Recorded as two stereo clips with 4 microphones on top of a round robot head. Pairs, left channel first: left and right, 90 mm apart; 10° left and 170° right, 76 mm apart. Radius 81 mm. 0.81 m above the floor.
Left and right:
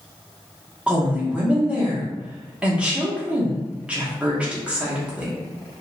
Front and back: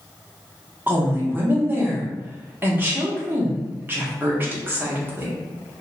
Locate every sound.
0.9 s a woman speaking: 150° right, 1.0 m